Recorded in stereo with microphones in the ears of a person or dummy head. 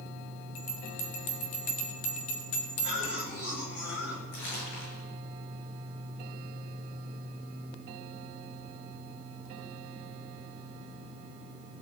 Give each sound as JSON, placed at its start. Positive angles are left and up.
{"t": 0.6, "sound": "a bell", "side_deg": 50, "distance_m": 1.3}
{"t": 2.8, "sound": "a cough", "side_deg": 50, "distance_m": 9.5}
{"t": 4.3, "sound": "crumpling", "side_deg": 55, "distance_m": 9.0}